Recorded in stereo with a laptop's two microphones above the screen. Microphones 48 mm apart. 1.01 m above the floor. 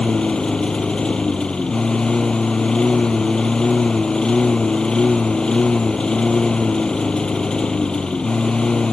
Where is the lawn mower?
20° left (ahead or behind).